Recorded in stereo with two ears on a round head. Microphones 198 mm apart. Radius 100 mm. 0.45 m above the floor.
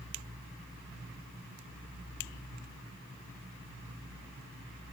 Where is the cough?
No cough in this recording.